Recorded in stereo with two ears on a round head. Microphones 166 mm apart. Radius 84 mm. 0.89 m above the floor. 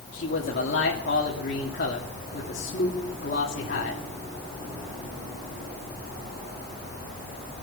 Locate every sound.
0.1 s a man speaking: 60° left (ahead or behind), 2 m